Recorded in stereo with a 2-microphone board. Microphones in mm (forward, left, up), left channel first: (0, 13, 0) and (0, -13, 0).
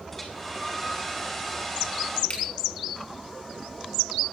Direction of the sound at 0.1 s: 10° left (ahead or behind).